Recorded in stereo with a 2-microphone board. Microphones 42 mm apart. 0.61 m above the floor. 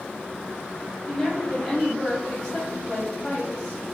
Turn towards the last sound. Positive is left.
turn(degrees=5)  # may be behind; listen again after turning